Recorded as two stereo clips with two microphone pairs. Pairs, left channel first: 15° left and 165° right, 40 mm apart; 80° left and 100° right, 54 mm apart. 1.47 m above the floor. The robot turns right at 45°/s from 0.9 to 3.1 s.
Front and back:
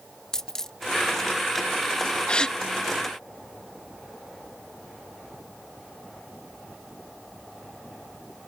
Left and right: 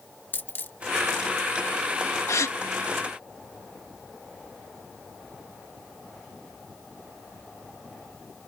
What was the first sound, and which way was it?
A dropped coin, 80° left.